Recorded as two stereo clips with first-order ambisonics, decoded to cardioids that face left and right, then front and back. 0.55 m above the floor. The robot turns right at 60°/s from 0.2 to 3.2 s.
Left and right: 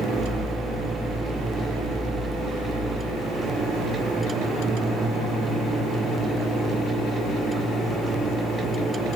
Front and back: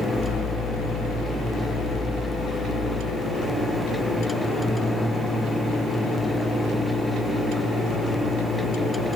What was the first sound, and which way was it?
Only background noise.